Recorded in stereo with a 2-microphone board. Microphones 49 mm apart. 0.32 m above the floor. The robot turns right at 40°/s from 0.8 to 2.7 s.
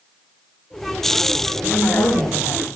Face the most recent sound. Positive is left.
turn(degrees=75)